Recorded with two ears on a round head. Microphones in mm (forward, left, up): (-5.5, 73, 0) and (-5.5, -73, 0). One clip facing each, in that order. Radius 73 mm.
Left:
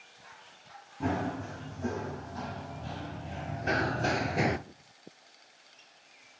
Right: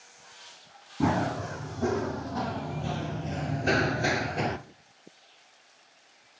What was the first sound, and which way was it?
Running footsteps, 70° right (ahead or behind).